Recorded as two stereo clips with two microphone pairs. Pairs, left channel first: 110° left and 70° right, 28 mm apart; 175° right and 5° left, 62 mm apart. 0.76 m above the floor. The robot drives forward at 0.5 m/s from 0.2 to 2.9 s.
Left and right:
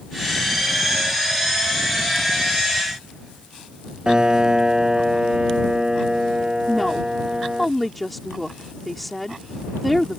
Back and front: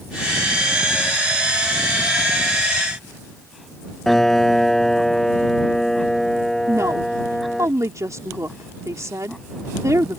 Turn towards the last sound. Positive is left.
turn(degrees=20)